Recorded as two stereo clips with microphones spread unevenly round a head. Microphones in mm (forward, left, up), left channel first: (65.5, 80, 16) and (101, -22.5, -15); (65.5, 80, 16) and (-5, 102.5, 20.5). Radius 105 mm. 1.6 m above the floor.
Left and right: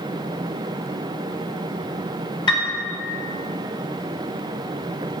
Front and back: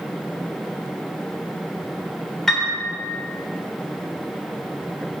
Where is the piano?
65° left, 4.5 m.